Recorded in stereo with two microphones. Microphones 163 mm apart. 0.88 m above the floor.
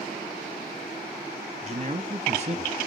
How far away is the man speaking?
About 1.6 m.